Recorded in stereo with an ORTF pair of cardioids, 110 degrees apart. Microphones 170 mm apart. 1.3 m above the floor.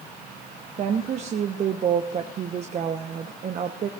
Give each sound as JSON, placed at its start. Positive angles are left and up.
{"t": 0.8, "sound": "a woman speaking", "azimuth_deg": -45, "distance_m": 1.0}